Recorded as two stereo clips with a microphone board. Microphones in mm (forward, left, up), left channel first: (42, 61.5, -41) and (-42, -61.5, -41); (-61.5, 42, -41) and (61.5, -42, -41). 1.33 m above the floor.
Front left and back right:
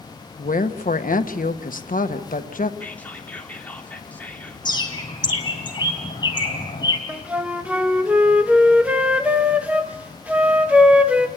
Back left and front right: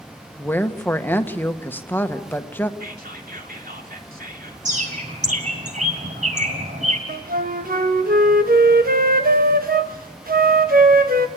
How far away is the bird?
About 3 m.